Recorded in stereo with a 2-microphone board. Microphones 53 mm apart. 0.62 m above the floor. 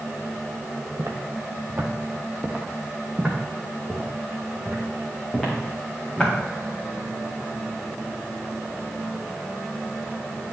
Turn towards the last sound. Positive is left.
turn(degrees=20)  # may be behind; listen again after turning